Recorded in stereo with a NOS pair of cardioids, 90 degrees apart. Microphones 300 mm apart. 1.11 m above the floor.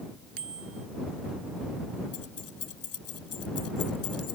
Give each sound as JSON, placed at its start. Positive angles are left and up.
{"t": 0.4, "sound": "a bicycle bell", "azimuth_deg": -45}
{"t": 2.1, "sound": "keys jangling", "azimuth_deg": 50}